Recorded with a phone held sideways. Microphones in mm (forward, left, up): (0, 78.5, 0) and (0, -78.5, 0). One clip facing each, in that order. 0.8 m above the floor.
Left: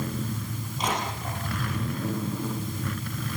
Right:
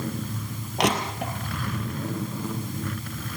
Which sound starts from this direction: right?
Crushing, at 0.8 s.